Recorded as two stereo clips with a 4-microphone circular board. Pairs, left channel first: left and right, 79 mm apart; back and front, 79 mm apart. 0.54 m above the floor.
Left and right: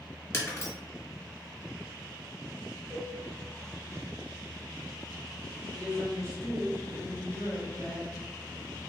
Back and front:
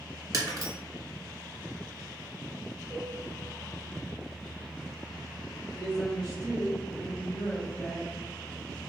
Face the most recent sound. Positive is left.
turn(degrees=130)